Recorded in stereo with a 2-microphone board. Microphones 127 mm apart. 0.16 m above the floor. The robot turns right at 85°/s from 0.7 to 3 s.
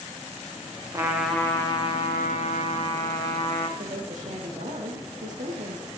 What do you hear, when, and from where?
0.9 s a trumpet: 30° right, 4 m; by 3.7 s 145° left, 4 m
3.8 s a woman speaking: 75° right (ahead or behind), 6 m